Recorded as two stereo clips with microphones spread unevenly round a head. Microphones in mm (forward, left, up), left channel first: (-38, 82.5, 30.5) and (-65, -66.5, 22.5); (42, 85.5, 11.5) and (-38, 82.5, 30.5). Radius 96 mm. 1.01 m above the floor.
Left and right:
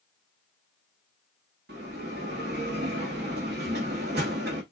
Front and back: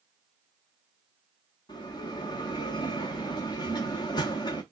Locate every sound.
1.7 s a bell: 65° right, 1.1 m